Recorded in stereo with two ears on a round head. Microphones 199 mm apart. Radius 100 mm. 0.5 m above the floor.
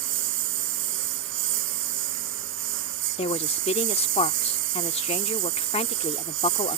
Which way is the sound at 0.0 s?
60° right (ahead or behind).